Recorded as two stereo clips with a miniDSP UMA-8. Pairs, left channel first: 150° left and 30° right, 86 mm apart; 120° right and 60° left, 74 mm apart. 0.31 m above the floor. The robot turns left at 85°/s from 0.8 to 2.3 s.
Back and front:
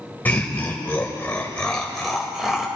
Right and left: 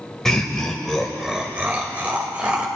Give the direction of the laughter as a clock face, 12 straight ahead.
6 o'clock.